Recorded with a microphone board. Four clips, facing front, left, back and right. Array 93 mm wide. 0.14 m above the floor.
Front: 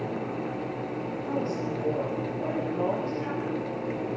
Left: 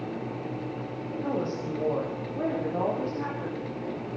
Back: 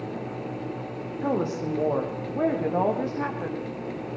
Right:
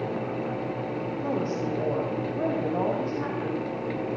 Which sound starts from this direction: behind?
A woman speaking, at 1.2 s.